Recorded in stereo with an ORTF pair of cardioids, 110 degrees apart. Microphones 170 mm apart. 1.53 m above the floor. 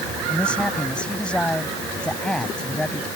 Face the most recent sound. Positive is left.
turn(degrees=5)